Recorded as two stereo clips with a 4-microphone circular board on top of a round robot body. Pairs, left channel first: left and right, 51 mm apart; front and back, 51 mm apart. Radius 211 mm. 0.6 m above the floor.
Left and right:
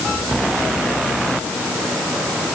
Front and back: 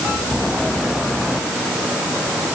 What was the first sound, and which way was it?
Only background noise.